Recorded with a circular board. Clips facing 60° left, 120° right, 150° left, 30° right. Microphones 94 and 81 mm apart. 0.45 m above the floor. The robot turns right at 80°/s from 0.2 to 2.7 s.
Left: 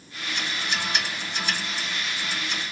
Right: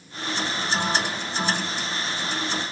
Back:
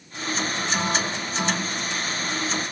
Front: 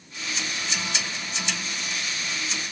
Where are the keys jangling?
I don't hear keys jangling.